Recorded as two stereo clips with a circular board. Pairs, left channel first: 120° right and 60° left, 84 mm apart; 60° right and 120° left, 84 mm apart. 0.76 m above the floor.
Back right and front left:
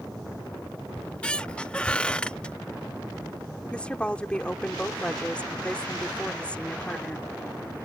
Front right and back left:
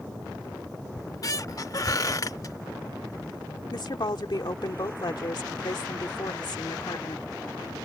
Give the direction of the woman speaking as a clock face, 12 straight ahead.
1 o'clock.